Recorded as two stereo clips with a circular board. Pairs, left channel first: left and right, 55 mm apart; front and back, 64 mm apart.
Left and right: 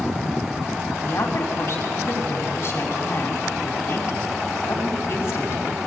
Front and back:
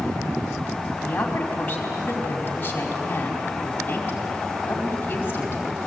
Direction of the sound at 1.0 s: 60° left.